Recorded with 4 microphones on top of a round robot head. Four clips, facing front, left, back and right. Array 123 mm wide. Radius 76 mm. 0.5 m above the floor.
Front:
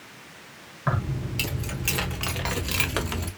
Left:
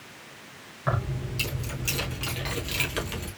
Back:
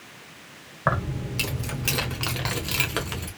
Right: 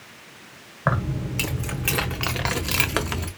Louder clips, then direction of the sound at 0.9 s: Right 5 dB, back 3 dB; 135° right.